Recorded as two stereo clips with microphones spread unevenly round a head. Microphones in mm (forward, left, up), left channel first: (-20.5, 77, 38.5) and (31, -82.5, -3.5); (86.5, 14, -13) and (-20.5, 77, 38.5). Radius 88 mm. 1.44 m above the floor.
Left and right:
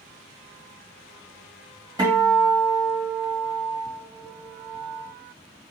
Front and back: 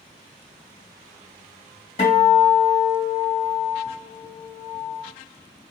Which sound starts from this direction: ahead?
A guitar, at 2.0 s.